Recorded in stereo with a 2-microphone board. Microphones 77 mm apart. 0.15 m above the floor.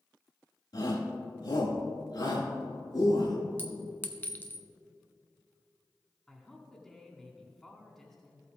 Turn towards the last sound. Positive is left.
turn(degrees=5)  # may be behind; listen again after turning